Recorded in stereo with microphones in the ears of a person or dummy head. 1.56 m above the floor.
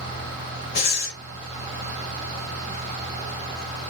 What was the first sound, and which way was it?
Breathing, 40° left (ahead or behind).